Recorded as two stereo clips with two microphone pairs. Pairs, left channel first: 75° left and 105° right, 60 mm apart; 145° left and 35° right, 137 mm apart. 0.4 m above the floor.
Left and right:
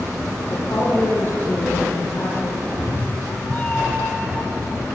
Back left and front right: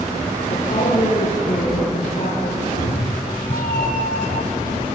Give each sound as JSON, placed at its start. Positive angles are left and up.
{"t": 0.5, "sound": "a woman speaking", "azimuth_deg": 110, "distance_m": 8.5}
{"t": 2.6, "sound": "a cat meowing", "azimuth_deg": 140, "distance_m": 3.0}